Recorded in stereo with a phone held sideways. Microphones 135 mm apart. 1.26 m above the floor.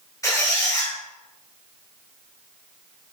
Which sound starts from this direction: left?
A squeak, at 0.2 s.